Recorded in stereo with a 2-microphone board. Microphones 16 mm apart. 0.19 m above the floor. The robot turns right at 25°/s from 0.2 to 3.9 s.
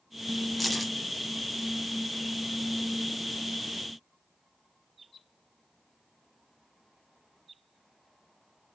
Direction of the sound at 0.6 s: 10° left (ahead or behind).